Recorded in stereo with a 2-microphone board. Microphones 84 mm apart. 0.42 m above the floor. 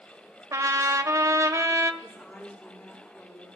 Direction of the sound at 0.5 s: 40° right (ahead or behind).